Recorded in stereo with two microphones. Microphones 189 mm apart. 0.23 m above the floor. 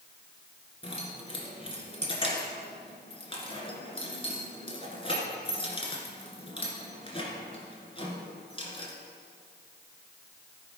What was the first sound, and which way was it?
Keys jangling, 30° left (ahead or behind).